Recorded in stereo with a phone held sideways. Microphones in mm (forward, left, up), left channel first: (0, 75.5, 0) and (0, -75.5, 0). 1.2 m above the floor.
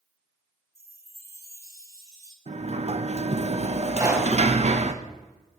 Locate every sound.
0.8 s a chime: 20° right (ahead or behind), 1.8 m
2.5 s a sliding door: 50° right (ahead or behind), 1.1 m
3.9 s a pop: 25° right (ahead or behind), 4 m